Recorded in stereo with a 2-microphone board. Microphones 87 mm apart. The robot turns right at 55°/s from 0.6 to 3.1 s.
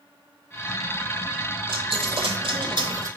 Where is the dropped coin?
115° right, 0.5 m; by 3.1 s 40° right, 0.5 m.